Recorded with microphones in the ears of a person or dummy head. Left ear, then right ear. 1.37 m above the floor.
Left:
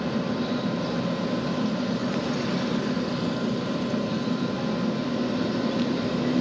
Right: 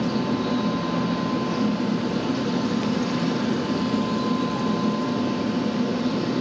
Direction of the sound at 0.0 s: 40° right (ahead or behind).